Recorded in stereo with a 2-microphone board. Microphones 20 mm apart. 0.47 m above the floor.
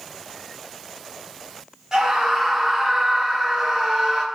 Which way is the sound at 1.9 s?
20° right (ahead or behind).